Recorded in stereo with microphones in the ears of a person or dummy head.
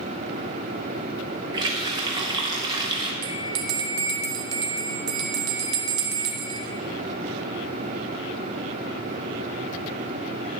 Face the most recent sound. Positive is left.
turn(degrees=-80)